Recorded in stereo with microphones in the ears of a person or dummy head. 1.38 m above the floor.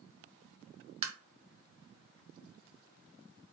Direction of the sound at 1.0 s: 30° right (ahead or behind).